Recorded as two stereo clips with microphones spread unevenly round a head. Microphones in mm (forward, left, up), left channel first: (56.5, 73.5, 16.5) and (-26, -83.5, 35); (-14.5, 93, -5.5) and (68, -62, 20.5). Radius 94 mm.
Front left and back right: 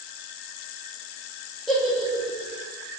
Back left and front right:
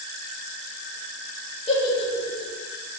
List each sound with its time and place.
1.7 s a giggle: 165° left, 0.7 m